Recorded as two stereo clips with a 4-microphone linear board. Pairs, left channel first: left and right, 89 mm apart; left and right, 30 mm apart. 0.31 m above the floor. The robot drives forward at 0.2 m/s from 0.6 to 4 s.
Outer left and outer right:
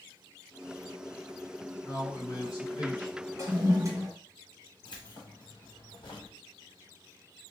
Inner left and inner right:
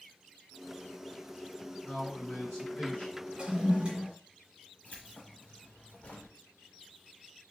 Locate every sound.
1.8 s a man speaking: 55° left (ahead or behind), 2.5 m; by 3.3 s 50° left (ahead or behind), 2.5 m
3.4 s a toilet flushing: 35° right (ahead or behind), 1.2 m
4.8 s keys jangling: 65° left (ahead or behind), 1.3 m